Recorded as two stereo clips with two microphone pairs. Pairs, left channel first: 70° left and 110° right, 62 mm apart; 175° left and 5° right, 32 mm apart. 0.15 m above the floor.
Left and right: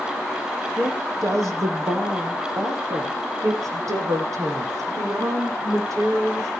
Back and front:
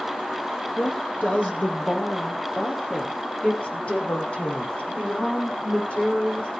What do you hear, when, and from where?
0.8 s a woman speaking: 145° right, 3.5 m; by 6.5 s 135° right, 8.5 m